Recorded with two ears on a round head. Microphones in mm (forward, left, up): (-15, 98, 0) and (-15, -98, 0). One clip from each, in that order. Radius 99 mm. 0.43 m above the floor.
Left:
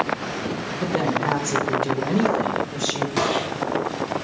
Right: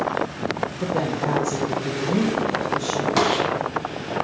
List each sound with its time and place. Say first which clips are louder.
0.8 s a woman speaking: left 4 dB; 15° left (ahead or behind), 1.4 m; by 3.1 s 30° left (ahead or behind), 3 m
3.2 s a gunshot: right 3 dB; 25° right (ahead or behind), 2.5 m